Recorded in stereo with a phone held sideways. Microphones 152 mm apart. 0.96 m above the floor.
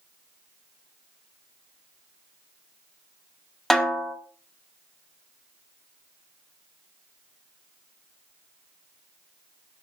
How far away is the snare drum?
About 1.4 m.